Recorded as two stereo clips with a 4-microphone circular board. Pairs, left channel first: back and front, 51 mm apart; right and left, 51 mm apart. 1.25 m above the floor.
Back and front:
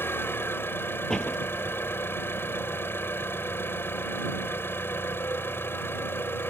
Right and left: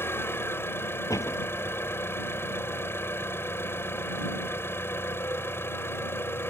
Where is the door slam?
100° right.